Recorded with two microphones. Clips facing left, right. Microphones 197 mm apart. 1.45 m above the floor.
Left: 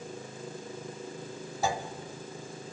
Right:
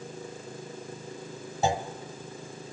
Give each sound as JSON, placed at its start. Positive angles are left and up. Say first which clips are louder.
{"t": 1.6, "sound": "a clunk", "louder": "right 4 dB", "side_deg": -25, "distance_m": 1.3}